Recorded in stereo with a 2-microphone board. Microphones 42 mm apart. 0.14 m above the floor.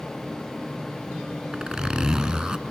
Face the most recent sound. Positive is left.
turn(degrees=-15)  # may be behind; listen again after turning